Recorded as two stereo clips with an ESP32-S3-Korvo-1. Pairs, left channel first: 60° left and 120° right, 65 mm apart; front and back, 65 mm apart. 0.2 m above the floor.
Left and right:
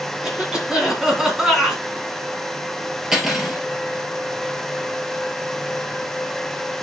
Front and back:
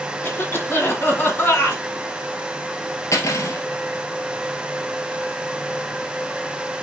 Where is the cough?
45° right, 2 m.